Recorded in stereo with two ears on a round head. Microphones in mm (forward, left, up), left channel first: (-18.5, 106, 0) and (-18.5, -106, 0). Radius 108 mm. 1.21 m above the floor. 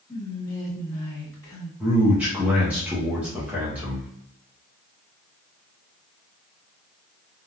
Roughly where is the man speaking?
Centre.